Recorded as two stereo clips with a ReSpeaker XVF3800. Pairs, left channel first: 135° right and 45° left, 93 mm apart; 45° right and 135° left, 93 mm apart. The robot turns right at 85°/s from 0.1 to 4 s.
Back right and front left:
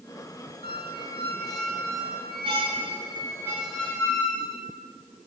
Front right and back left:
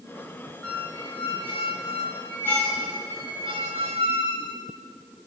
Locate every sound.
0.6 s a squeak: 130° right, 3 m; by 4.6 s 155° left, 3 m